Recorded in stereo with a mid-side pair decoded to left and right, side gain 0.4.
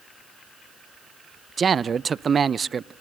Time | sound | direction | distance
1.6 | a man speaking | 45° right | 0.5 m